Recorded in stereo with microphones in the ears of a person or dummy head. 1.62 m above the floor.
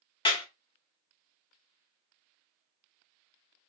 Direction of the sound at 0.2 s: 30° left (ahead or behind).